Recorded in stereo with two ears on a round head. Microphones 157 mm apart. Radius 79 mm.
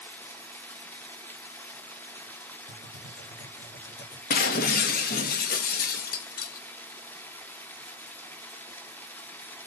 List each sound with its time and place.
0.0 s running water: 10° left (ahead or behind), 0.8 m
2.7 s typing on a keyboard: 60° left (ahead or behind), 3 m
4.3 s breaking glass: 55° left (ahead or behind), 0.9 m